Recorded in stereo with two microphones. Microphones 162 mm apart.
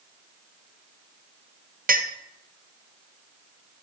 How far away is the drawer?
I don't hear a drawer.